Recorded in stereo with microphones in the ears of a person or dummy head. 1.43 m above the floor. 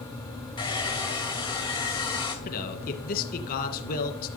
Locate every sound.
0.6 s a hair dryer: 25° left (ahead or behind), 1.8 m
2.5 s a man speaking: 50° left (ahead or behind), 1.6 m